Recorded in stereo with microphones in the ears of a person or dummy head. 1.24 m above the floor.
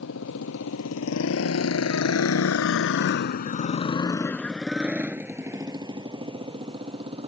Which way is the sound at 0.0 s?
75° left (ahead or behind).